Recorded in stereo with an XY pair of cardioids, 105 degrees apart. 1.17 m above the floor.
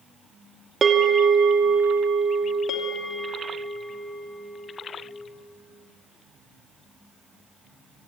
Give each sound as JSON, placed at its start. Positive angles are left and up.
{"t": 0.8, "sound": "a bell", "azimuth_deg": -35, "distance_m": 2.5}
{"t": 2.7, "sound": "a bell", "azimuth_deg": 70, "distance_m": 3.0}